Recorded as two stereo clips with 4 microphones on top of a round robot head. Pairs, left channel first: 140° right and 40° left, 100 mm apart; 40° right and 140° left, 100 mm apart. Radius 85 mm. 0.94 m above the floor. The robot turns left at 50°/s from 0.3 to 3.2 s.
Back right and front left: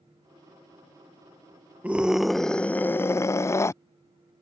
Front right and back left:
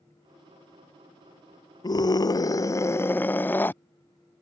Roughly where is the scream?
Ahead right.